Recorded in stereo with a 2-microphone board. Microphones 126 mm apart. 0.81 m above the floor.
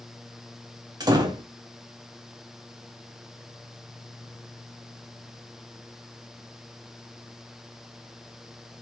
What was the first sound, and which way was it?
A door slam, 30° right (ahead or behind).